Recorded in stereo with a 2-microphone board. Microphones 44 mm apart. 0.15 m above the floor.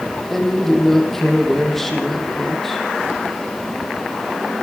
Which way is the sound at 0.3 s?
5° left (ahead or behind).